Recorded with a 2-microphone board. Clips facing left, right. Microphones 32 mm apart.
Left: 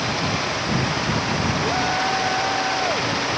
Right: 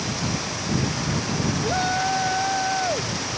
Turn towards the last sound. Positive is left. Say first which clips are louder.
# even
turn(degrees=-5)  # may be behind; listen again after turning